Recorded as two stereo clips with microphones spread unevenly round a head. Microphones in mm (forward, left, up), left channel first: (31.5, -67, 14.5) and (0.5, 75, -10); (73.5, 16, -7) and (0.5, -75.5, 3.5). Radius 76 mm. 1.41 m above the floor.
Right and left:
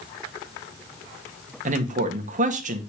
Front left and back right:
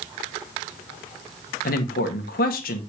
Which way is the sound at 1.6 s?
65° left.